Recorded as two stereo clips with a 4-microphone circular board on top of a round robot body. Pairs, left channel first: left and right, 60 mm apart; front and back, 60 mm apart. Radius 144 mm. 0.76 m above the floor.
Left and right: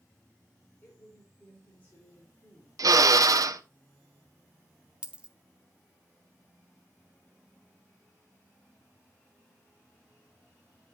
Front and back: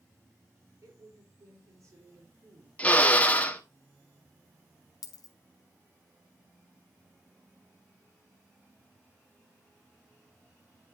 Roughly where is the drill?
Right.